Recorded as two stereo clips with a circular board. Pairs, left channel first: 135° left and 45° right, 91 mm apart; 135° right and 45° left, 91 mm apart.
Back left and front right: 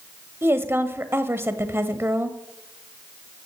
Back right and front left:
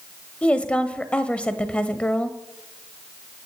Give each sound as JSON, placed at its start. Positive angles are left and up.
{"t": 0.4, "sound": "a woman speaking", "azimuth_deg": -70, "distance_m": 1.0}